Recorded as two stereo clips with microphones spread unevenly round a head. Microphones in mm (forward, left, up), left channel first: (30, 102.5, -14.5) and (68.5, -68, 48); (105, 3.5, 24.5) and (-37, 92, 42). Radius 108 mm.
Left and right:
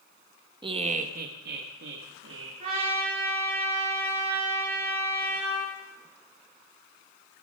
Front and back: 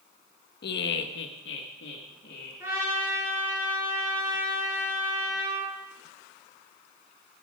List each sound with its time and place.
0.6 s laughter: 10° right, 1.0 m; by 2.5 s 70° right, 1.9 m
2.6 s a trumpet: 135° right, 4 m